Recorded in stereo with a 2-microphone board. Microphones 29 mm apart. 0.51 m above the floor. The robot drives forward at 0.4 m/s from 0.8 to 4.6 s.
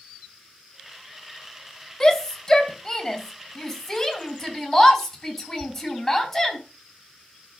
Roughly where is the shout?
Centre.